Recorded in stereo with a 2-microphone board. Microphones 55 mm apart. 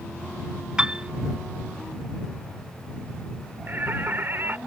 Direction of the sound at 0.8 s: 15° right (ahead or behind).